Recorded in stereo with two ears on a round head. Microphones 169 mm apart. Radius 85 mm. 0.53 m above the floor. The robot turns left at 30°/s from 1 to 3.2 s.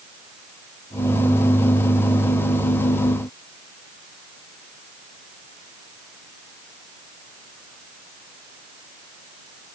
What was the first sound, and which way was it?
Only background noise.